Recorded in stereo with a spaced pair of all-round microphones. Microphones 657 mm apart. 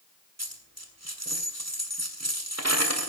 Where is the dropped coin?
25° right (ahead or behind), 2.5 m.